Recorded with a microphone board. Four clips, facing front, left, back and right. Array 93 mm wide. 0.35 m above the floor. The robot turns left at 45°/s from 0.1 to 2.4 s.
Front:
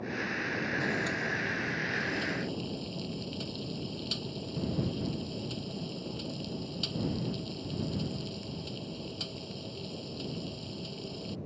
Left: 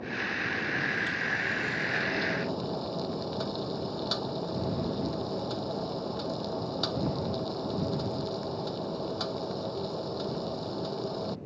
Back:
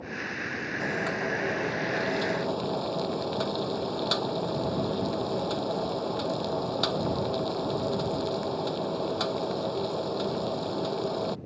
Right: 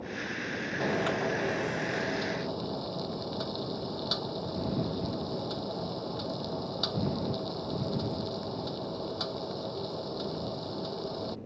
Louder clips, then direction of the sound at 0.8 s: Right 1 dB, back 3 dB; 115° right.